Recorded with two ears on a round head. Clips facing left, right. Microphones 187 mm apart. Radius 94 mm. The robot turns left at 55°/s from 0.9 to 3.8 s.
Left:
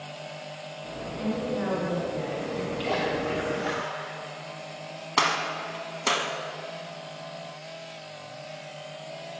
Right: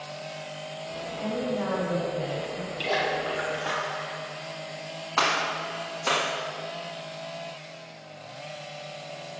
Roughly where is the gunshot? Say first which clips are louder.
Even; left.